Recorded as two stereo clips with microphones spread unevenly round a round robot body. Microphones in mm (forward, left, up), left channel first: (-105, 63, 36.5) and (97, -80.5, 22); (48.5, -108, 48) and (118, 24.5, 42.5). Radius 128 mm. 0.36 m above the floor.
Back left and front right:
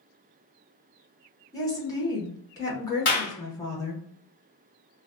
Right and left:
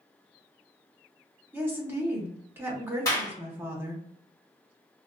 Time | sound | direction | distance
1.5 | a woman speaking | 90° left | 0.9 m
3.0 | a clap | 175° left | 1.4 m